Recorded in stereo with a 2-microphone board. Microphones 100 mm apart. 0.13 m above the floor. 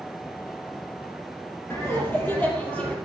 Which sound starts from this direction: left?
Laughter, at 1.7 s.